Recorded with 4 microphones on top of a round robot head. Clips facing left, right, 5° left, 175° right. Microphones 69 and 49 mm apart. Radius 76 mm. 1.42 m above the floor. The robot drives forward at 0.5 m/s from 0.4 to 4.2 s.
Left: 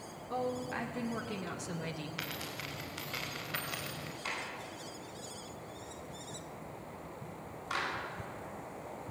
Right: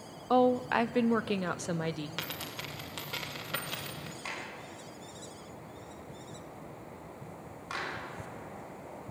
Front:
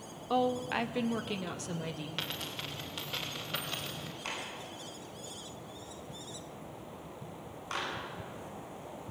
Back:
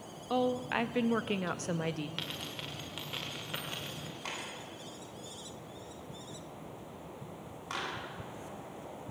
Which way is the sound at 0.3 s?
85° right.